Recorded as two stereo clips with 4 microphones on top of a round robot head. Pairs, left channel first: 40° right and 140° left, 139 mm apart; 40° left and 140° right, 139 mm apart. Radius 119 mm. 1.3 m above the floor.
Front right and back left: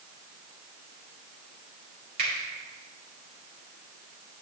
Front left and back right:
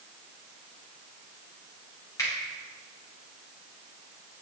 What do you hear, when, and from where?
2.2 s a finger snap: 110° left, 5 m